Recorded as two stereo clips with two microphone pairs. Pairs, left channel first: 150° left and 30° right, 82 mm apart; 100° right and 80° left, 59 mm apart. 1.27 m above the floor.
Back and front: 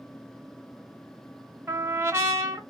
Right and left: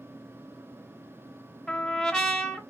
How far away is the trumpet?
About 0.8 m.